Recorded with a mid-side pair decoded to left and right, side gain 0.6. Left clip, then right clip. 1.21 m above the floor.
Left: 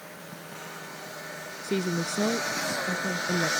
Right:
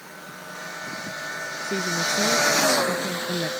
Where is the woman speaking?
10° left; by 3.5 s 5° left.